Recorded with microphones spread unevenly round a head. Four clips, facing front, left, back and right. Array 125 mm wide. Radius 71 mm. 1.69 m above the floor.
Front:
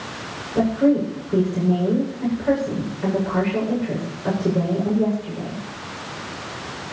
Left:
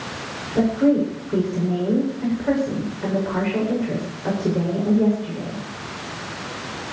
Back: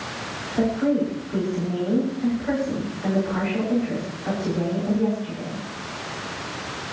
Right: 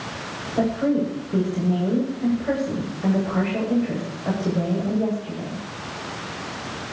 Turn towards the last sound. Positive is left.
turn(degrees=45)